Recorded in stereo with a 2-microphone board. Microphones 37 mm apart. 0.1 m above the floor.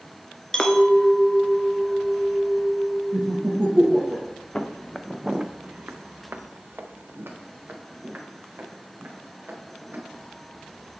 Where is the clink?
15° left (ahead or behind), 0.7 m.